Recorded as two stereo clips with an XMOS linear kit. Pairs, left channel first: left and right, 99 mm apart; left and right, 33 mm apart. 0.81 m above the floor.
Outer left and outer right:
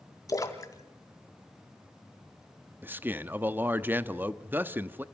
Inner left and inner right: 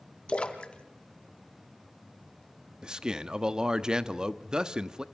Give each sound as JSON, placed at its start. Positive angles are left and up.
{"t": 0.3, "sound": "a splash", "side_deg": 35, "distance_m": 1.6}
{"t": 2.8, "sound": "a man speaking", "side_deg": -20, "distance_m": 0.9}